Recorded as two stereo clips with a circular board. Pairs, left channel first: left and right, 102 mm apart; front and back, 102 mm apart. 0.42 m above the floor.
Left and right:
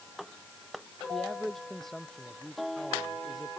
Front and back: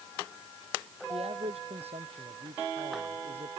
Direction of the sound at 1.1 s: 175° left.